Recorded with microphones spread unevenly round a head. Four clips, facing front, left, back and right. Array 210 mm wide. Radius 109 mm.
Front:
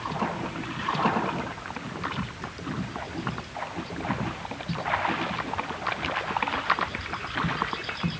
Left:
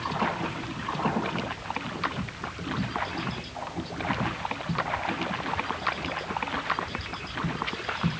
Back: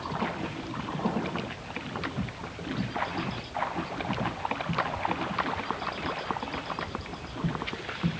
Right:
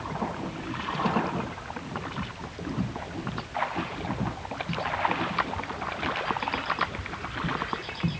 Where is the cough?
I don't hear a cough.